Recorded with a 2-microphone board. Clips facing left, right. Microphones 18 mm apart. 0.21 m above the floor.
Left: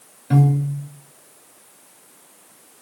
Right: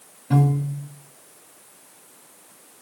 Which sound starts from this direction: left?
A piano, at 0.3 s.